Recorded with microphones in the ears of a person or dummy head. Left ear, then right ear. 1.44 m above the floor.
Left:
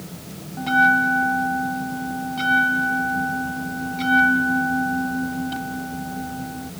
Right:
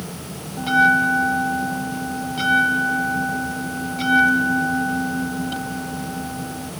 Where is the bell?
5° right (ahead or behind).